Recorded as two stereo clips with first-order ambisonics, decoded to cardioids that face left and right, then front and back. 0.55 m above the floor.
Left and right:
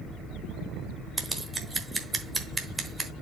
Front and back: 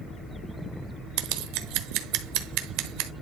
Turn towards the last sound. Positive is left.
turn(degrees=-170)